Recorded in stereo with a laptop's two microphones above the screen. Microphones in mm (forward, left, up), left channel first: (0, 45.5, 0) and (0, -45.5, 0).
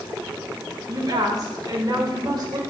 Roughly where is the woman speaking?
Right.